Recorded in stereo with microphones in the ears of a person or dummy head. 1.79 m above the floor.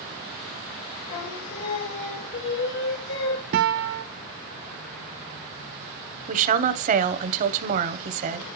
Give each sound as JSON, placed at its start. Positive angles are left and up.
{"t": 1.1, "sound": "singing", "side_deg": 70, "distance_m": 2.5}
{"t": 3.5, "sound": "a guitar", "side_deg": -50, "distance_m": 0.6}
{"t": 6.3, "sound": "a woman speaking", "side_deg": -45, "distance_m": 1.0}